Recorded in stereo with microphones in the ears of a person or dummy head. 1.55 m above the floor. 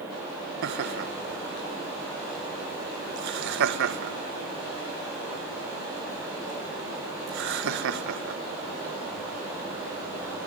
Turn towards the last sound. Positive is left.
turn(degrees=-70)  # may be behind; listen again after turning